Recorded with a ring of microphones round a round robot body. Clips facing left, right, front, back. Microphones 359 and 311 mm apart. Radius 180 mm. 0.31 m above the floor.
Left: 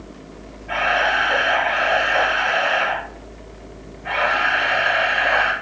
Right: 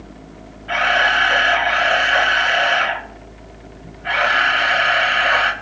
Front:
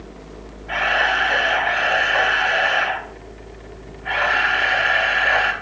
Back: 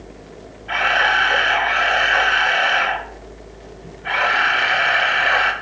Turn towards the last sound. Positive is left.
turn(degrees=-115)